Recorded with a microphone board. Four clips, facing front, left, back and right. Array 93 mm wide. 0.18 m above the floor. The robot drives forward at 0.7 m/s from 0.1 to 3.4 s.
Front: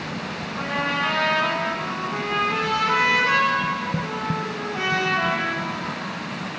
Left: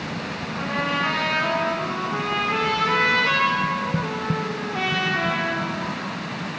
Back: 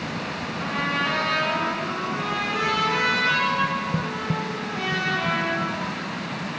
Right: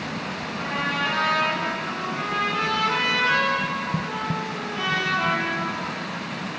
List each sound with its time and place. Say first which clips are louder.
0.6 s a trumpet: left 2 dB, front 2 dB; 35° left, 3.5 m; by 6.2 s 75° left, 2 m